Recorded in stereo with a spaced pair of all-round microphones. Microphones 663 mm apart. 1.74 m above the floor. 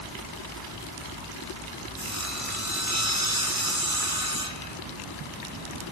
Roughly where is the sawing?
Right.